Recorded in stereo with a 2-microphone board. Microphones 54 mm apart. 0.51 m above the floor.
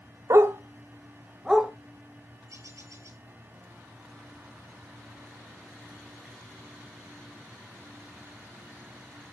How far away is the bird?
About 5.5 m.